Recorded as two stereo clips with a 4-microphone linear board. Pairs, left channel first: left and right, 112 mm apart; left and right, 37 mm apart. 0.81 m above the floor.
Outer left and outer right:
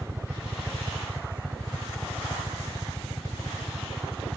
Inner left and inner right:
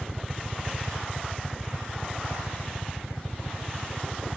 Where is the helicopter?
5° right (ahead or behind); by 4.4 s 10° left (ahead or behind).